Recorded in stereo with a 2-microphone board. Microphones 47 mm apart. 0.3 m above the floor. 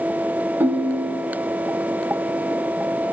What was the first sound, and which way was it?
A ringtone, 60° right (ahead or behind).